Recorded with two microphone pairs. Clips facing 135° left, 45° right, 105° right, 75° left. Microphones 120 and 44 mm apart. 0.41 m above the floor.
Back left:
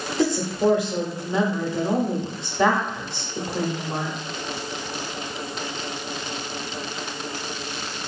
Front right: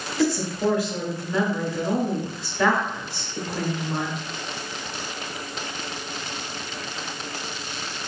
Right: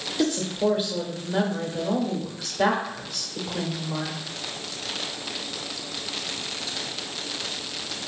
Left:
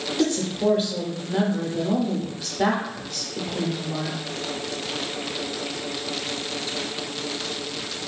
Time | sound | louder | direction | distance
0.2 | a woman speaking | back left 1 dB, left 1 dB | 165° left | 0.8 m